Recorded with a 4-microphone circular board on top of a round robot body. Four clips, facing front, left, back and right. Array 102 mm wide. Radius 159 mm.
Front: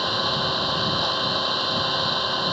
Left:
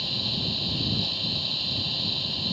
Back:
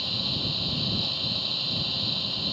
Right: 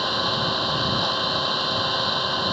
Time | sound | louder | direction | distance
0.0 | an engine running | right 10 dB, front 11 dB | 45° right | ?